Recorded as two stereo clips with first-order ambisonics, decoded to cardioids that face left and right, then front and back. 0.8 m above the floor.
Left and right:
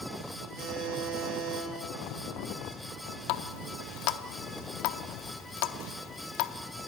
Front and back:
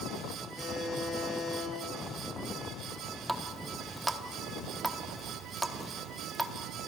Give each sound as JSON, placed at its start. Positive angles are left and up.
{"t": 0.6, "sound": "a buzzer", "azimuth_deg": -75, "distance_m": 8.0}
{"t": 3.3, "sound": "a running tap", "azimuth_deg": 100, "distance_m": 0.9}